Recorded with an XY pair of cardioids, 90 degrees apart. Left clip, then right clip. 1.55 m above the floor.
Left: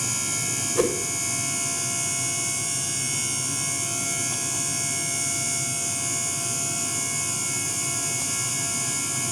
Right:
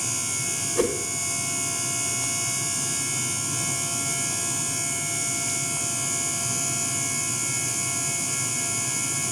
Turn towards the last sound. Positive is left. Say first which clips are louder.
# left 1 dB
turn(degrees=20)